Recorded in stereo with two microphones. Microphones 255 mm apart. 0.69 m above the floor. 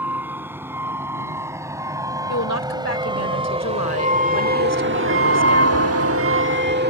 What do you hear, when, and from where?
0.0 s a vehicle: 10° right (ahead or behind); by 6.9 s 40° right (ahead or behind)
2.3 s a woman speaking: 75° left (ahead or behind)